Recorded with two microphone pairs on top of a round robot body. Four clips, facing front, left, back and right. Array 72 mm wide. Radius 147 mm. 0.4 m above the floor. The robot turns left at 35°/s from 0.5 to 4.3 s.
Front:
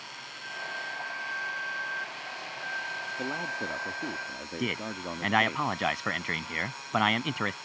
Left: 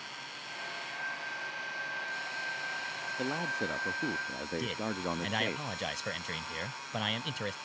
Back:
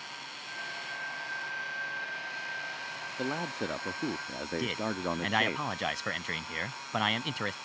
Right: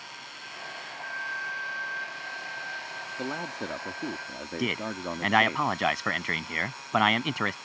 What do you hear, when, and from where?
3.2 s a man speaking: 95° right; by 5.6 s 135° right
4.6 s a man speaking: 70° right